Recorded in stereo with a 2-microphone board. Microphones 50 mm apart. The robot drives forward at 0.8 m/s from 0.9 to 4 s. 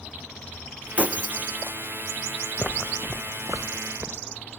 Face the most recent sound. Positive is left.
turn(degrees=-60)  # may be behind; listen again after turning